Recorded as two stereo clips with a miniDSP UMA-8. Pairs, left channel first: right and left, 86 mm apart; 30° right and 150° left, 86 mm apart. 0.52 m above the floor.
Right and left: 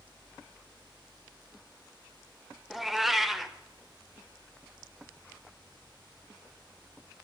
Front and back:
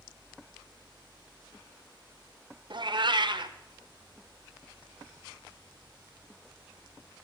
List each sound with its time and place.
2.7 s a cat meowing: 175° left, 0.5 m